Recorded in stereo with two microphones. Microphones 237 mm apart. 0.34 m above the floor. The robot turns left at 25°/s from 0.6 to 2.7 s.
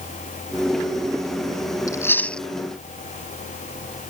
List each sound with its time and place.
1.9 s chewing: 15° left (ahead or behind); by 2.5 s centre (ahead or behind)